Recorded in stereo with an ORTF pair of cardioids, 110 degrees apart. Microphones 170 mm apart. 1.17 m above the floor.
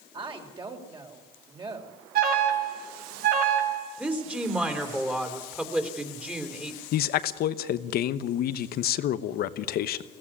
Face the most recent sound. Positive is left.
turn(degrees=65)